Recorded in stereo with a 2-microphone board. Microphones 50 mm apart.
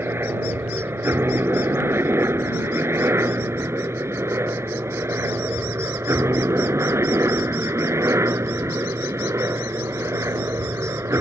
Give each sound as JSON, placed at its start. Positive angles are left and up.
{"t": 0.0, "sound": "a helicopter", "side_deg": -50}